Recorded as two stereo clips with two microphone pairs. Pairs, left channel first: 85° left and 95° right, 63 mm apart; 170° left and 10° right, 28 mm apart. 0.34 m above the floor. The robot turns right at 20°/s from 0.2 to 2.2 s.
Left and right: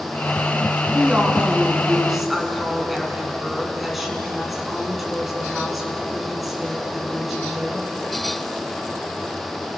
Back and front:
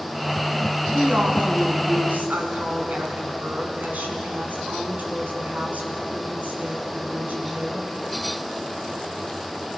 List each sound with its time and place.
0.9 s a woman speaking: 35° right, 3.5 m; by 7.9 s 5° right, 3.5 m